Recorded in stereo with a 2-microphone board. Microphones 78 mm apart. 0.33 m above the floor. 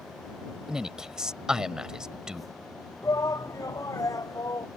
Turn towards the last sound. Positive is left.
turn(degrees=45)  # may be behind; listen again after turning